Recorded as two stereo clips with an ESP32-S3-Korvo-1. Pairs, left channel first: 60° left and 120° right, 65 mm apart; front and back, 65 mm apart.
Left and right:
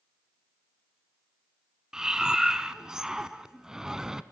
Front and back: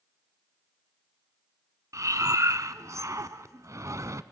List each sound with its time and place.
1.9 s breathing: 160° left, 0.7 m